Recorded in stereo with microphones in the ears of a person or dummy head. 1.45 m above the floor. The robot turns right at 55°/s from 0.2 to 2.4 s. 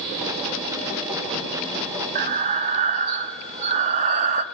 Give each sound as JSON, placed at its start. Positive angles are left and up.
{"t": 2.1, "sound": "breathing", "side_deg": -45, "distance_m": 0.9}